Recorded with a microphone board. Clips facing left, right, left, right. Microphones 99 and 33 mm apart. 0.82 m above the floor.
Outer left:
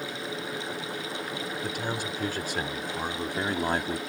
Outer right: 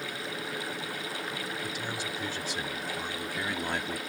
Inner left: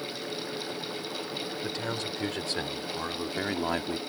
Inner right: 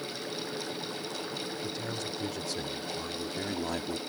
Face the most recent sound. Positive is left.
turn(degrees=35)  # may be behind; listen again after turning